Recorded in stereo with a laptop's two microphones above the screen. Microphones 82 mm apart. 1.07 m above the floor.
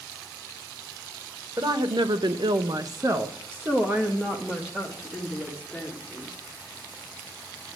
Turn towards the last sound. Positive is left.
turn(degrees=0)  # may be behind; listen again after turning